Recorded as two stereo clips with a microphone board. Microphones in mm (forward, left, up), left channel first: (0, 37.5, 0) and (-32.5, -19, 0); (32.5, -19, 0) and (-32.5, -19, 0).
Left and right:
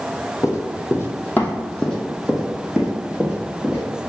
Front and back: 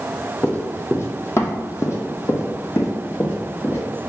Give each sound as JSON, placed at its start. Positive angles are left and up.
{"t": 0.4, "sound": "running footsteps", "azimuth_deg": 55, "distance_m": 1.1}